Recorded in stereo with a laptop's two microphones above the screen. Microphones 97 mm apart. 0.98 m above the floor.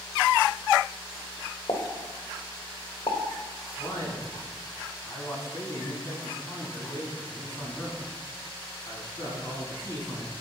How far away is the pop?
About 1.7 m.